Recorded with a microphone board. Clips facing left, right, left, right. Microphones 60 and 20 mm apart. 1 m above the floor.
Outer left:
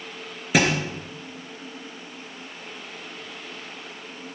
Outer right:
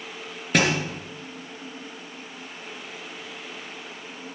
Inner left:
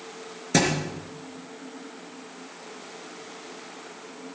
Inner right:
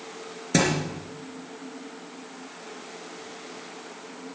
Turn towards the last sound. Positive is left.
turn(degrees=5)  # may be behind; listen again after turning